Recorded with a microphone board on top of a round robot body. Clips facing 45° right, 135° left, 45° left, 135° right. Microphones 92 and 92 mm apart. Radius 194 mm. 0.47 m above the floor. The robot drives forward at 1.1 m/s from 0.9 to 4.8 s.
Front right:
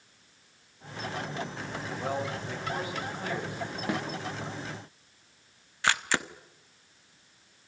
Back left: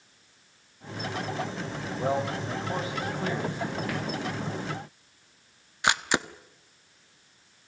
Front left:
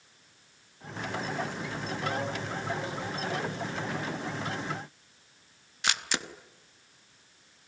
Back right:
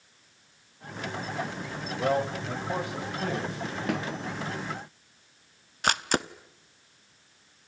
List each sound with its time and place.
2.0 s a man speaking: 155° right, 4.5 m; by 3.8 s 165° right, 6.5 m
3.9 s a snare drum: 110° right, 5 m
5.8 s a camera shutter: 160° right, 1.4 m